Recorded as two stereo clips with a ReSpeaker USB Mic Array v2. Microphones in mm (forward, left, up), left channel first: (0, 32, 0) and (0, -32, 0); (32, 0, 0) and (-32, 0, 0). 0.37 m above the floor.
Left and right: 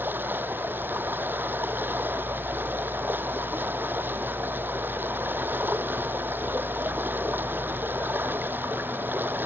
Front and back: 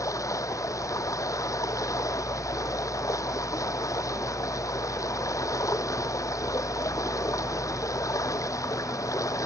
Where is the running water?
30° right.